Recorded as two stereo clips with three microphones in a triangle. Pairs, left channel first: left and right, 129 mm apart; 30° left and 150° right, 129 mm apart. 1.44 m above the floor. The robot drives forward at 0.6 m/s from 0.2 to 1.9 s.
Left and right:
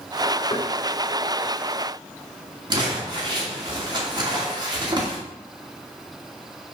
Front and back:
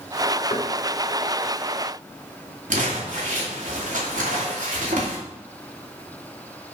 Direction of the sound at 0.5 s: 60° left.